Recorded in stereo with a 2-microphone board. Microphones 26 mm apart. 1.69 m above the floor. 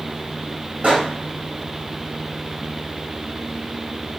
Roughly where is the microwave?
Right.